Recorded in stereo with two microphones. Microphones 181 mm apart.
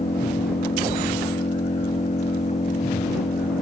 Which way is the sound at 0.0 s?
40° left (ahead or behind).